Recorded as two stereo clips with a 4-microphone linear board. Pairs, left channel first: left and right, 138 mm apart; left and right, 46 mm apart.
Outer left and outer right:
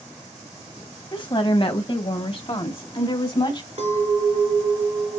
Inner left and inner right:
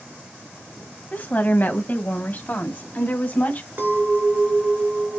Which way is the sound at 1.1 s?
40° left (ahead or behind).